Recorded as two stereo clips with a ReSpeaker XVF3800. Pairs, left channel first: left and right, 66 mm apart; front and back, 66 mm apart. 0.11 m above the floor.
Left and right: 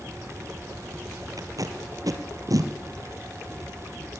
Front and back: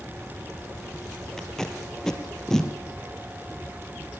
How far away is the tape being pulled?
About 2.5 m.